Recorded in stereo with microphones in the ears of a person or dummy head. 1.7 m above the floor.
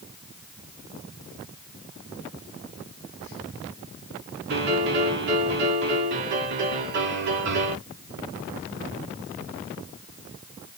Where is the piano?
60° right (ahead or behind), 2.5 m.